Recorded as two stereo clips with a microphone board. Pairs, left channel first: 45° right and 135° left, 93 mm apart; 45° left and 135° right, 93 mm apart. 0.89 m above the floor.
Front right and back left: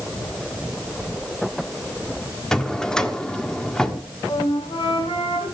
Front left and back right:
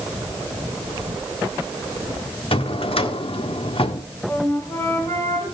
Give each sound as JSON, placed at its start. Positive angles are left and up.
{"t": 2.5, "sound": "a drawer", "azimuth_deg": 40, "distance_m": 1.4}
{"t": 4.3, "sound": "a flute", "azimuth_deg": -15, "distance_m": 5.0}